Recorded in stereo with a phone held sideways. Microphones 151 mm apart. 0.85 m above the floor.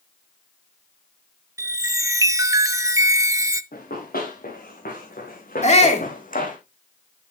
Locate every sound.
1.6 s a chime: 20° right (ahead or behind), 0.5 m
3.7 s running footsteps: 80° left, 4 m; by 6.6 s 65° left (ahead or behind), 1.8 m
5.6 s a shout: 50° left (ahead or behind), 2 m